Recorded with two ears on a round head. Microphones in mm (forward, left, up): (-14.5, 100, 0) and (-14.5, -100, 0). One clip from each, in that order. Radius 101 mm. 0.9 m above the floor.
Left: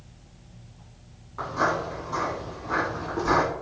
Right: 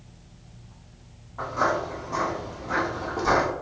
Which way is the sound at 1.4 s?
20° left (ahead or behind).